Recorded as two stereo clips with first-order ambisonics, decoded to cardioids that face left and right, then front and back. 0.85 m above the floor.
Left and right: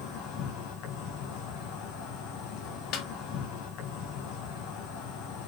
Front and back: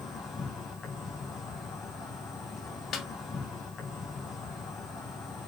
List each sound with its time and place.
0.0 s an insect: 65° left, 4 m
2.9 s a snare drum: 55° left, 1.7 m